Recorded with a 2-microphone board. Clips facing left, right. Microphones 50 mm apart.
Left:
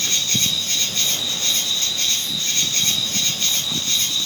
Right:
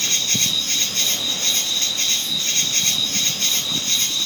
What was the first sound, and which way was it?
An insect, 45° right (ahead or behind).